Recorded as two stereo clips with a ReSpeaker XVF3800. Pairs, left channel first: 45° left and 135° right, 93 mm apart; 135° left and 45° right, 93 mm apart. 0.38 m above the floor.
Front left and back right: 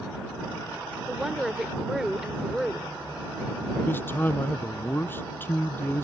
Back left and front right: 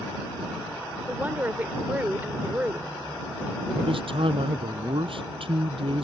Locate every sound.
1.1 s a woman speaking: 60° right
3.7 s a man speaking: 20° right